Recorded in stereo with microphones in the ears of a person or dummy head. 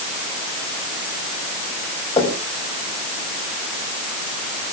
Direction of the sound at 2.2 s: 25° left (ahead or behind).